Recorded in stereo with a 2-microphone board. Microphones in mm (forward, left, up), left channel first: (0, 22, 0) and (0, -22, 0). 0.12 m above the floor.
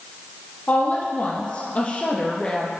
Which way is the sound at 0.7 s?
40° left (ahead or behind).